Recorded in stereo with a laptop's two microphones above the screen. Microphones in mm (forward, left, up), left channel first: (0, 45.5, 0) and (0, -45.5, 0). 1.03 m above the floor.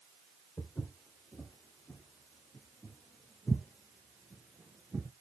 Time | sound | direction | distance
0.6 | footsteps | 20° left (ahead or behind) | 2.5 m